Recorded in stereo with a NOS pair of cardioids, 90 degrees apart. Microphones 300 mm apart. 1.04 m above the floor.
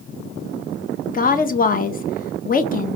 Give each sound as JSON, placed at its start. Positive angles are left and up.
{"t": 1.1, "sound": "a woman speaking", "azimuth_deg": 30, "distance_m": 0.8}